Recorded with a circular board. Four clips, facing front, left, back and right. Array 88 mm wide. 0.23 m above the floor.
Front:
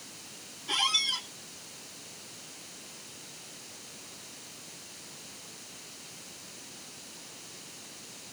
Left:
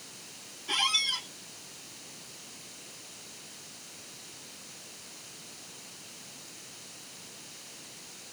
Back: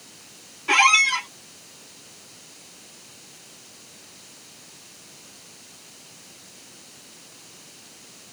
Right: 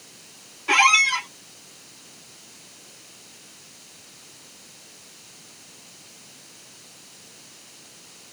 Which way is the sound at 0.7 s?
130° right.